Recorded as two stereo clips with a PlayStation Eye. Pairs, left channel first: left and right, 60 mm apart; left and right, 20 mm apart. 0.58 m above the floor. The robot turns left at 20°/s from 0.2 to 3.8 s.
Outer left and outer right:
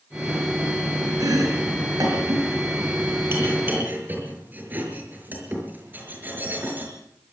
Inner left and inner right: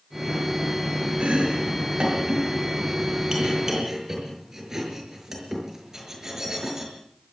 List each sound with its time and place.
1.2 s chopping: 80° right, 6.5 m; by 6.9 s 30° right (ahead or behind), 6.5 m